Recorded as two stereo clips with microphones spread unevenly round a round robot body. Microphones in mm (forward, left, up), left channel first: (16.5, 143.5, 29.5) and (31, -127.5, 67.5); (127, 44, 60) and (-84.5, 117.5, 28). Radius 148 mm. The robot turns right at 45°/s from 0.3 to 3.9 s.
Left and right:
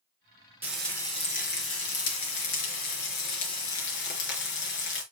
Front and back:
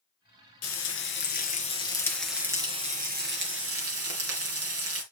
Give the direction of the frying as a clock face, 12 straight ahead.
12 o'clock.